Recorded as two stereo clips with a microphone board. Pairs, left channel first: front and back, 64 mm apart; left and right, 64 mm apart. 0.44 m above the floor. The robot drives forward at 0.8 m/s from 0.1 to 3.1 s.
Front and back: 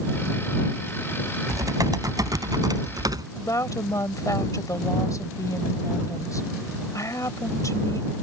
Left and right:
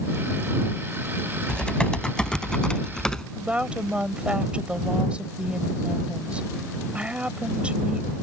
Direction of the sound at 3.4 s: 20° right.